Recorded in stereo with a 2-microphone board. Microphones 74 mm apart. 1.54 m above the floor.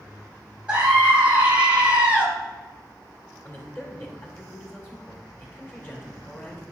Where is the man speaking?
35° left (ahead or behind), 1.8 m.